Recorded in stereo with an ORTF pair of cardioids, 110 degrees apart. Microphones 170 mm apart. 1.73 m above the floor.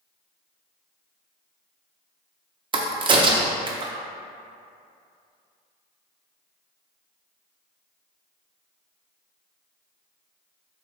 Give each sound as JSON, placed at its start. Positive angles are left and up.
{"t": 2.7, "sound": "a crack", "azimuth_deg": -30, "distance_m": 0.6}